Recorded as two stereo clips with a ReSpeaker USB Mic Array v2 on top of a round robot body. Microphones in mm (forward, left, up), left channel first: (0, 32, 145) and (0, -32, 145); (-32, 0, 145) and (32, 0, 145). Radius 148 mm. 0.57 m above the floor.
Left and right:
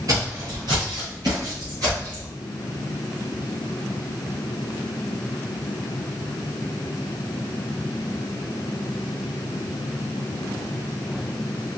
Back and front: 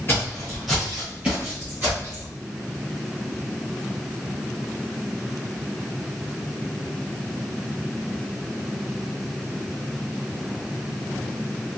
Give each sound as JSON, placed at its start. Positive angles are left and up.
{"t": 0.1, "sound": "footsteps", "azimuth_deg": -120, "distance_m": 0.7}